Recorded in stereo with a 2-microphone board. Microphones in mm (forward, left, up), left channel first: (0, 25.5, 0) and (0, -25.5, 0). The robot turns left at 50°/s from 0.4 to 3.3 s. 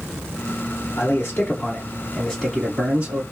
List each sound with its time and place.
1.0 s a man speaking: 75° left, 2.5 m; by 3.2 s 35° right, 2.5 m